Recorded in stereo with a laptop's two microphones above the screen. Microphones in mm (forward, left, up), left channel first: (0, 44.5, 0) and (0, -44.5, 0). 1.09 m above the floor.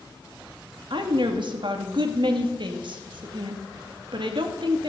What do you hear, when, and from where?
0.9 s a woman speaking: 60° right (ahead or behind), 2 m